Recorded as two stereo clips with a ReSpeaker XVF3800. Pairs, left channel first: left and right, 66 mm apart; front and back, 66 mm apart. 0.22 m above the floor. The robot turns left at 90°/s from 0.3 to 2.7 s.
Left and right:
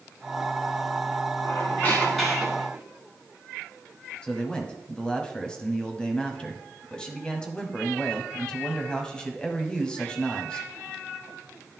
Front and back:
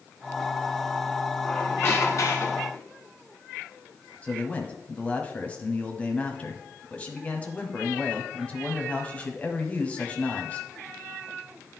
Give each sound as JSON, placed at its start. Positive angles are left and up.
{"t": 1.4, "sound": "a squeak", "azimuth_deg": 70, "distance_m": 1.6}
{"t": 4.2, "sound": "a man speaking", "azimuth_deg": 30, "distance_m": 1.0}